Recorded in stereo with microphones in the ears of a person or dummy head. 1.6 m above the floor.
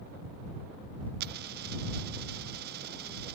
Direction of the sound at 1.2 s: 50° right (ahead or behind).